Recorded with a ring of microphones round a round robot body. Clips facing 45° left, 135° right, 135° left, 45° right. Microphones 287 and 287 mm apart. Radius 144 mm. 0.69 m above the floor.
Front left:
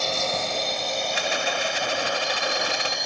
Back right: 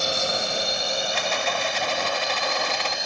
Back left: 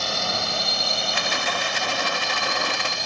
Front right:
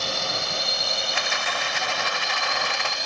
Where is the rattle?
115° left.